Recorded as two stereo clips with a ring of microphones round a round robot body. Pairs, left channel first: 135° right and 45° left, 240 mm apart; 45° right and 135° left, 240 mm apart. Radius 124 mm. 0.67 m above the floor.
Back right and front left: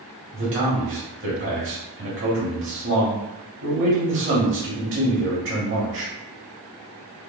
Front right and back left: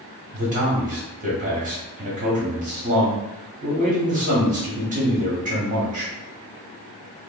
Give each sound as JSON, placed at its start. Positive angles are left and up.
{"t": 0.3, "sound": "a man speaking", "azimuth_deg": 80, "distance_m": 1.3}